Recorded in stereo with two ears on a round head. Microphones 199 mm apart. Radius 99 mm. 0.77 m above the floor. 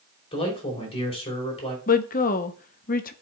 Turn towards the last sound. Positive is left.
turn(degrees=40)  # may be behind; listen again after turning